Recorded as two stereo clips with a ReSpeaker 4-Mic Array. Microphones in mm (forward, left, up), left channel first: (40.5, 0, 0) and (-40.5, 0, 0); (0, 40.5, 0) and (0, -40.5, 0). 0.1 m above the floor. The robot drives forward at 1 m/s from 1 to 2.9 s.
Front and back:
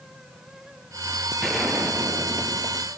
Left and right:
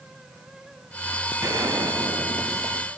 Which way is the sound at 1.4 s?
85° right.